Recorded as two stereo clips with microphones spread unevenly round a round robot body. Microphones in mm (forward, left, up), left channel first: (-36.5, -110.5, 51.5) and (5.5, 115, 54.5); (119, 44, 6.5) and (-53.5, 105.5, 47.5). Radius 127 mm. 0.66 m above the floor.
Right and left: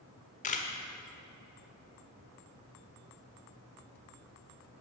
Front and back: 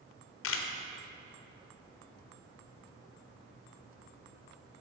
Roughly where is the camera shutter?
Ahead right.